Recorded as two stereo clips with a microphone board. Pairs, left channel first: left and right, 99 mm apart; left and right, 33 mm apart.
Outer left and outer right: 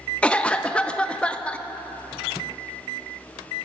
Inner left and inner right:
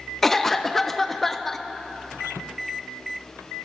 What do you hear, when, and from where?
0.2 s a cough: 10° left (ahead or behind), 0.6 m